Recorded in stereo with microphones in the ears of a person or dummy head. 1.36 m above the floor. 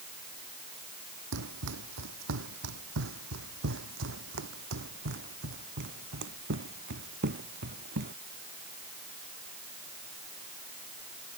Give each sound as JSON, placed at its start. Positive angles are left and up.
{"t": 1.3, "sound": "running footsteps", "side_deg": -65}